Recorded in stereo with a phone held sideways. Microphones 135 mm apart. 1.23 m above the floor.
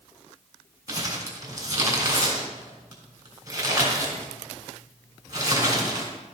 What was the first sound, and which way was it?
Crumpling, 30° right (ahead or behind).